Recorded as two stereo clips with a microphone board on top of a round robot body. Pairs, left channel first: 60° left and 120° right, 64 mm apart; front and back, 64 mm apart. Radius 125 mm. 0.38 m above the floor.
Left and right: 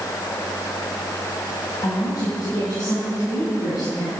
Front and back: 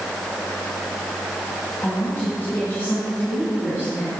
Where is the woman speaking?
65° left, 3.5 m; by 4.1 s 55° left, 6 m.